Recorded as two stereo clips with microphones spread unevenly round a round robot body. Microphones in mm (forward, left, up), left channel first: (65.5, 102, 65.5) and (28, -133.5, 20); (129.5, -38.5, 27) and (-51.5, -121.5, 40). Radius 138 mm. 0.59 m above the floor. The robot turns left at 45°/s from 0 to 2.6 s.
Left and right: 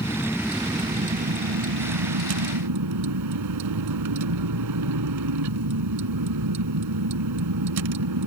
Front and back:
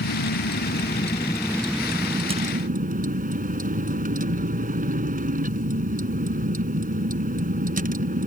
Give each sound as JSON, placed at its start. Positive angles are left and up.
{"t": 0.0, "sound": "a vehicle", "azimuth_deg": 10}